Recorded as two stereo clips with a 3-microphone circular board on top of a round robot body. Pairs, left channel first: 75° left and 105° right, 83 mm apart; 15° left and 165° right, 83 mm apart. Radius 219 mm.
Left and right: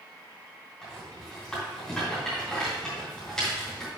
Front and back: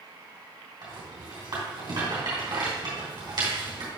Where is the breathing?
I don't hear breathing.